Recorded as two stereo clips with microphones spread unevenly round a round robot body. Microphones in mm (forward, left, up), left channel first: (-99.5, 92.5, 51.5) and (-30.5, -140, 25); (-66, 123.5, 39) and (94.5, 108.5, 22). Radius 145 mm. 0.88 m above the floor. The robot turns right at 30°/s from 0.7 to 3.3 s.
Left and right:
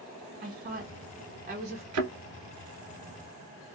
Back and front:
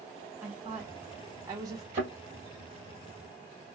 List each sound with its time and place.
0.4 s a woman speaking: 75° right, 0.9 m; by 1.8 s 40° right, 0.9 m
1.9 s a thud: 70° right, 1.4 m; by 2.1 s 65° right, 1.4 m